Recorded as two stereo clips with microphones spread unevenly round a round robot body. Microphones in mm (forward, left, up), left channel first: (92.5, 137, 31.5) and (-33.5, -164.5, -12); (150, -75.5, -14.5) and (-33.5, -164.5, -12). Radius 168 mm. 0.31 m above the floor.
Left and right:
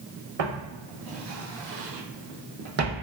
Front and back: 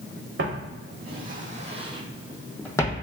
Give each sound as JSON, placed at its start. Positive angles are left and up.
{"t": 0.4, "sound": "footsteps", "azimuth_deg": -125, "distance_m": 1.2}